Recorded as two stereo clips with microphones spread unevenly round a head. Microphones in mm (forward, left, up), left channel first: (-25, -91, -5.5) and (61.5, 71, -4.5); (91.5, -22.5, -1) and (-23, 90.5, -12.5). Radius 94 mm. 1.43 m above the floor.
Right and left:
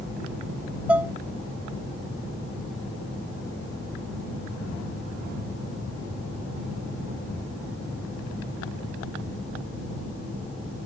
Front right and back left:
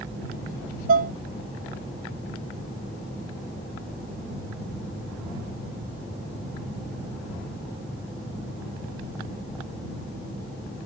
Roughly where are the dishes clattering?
Behind left.